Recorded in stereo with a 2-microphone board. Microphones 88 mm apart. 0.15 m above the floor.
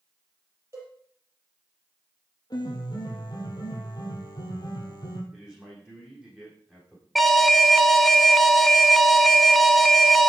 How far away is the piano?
About 2.5 m.